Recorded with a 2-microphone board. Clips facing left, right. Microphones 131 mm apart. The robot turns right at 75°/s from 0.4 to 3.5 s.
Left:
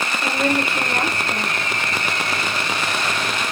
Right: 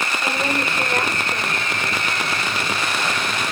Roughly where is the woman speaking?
Ahead.